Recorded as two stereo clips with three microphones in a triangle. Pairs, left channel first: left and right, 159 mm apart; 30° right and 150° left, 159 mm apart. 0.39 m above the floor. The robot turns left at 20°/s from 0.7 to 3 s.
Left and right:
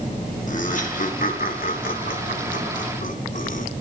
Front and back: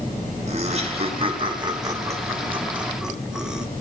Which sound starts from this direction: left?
Laughter, at 0.5 s.